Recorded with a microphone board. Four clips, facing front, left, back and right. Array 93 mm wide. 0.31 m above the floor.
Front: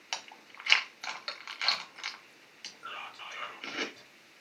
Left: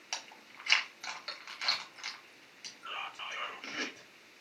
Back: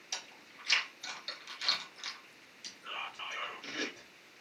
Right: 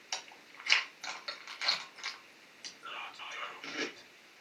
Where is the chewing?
Straight ahead, 1.0 m.